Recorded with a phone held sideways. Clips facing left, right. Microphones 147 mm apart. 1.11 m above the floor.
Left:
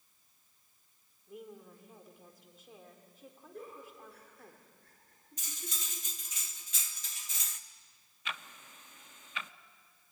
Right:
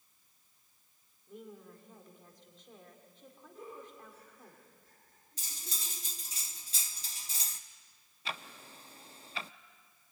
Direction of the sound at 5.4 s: 35° right (ahead or behind).